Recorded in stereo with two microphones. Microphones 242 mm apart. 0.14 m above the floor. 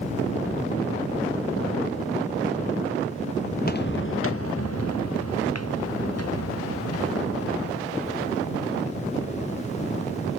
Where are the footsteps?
35° left (ahead or behind); by 7.9 s 70° left (ahead or behind).